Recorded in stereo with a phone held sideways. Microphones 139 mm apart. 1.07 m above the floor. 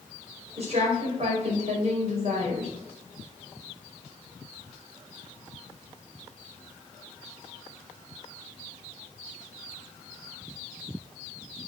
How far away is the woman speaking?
About 4.5 m.